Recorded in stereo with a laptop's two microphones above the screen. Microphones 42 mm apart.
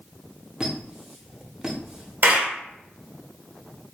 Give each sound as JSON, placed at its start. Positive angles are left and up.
{"t": 0.6, "sound": "a squeak", "side_deg": -20, "distance_m": 0.9}
{"t": 2.2, "sound": "a clap", "side_deg": -55, "distance_m": 1.7}